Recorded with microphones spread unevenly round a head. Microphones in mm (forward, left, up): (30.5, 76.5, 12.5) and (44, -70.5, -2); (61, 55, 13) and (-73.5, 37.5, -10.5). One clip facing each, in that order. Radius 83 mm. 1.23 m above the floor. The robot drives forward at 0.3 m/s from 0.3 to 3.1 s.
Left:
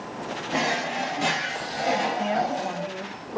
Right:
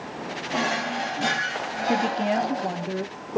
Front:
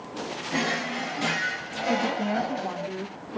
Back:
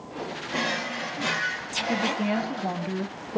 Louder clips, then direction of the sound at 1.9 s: Right 2 dB, even; 100° right.